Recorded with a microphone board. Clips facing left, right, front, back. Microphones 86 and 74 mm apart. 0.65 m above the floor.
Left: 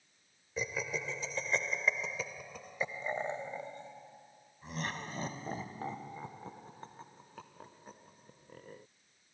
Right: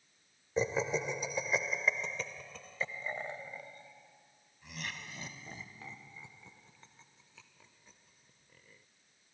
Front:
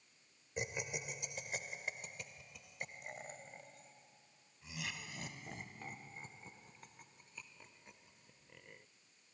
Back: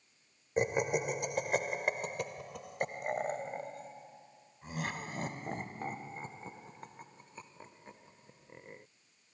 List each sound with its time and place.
0.6 s laughter: 145° right; by 8.8 s 125° left